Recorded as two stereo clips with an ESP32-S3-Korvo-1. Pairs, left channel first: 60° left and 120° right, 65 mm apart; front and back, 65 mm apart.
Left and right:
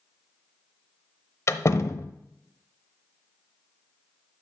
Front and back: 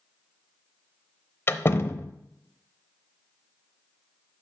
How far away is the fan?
I don't hear a fan.